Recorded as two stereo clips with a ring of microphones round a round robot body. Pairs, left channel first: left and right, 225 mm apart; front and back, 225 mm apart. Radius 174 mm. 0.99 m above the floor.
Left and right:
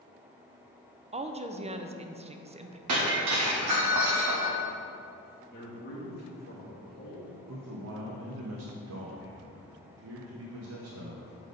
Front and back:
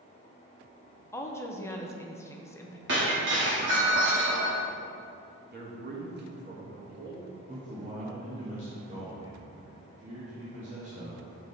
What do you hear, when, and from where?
1.1 s a woman speaking: 65° right, 0.6 m
2.9 s breaking glass: 125° right, 0.8 m
5.5 s a man speaking: 140° left, 1.7 m
7.5 s a man speaking: 115° right, 0.8 m